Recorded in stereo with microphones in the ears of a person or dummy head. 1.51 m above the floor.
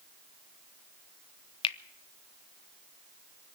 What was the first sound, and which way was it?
A finger snap, 30° left (ahead or behind).